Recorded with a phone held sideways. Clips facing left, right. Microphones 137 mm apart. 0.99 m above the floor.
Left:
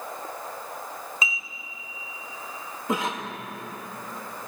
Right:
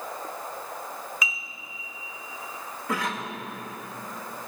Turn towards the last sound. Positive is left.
turn(degrees=20)  # may be behind; listen again after turning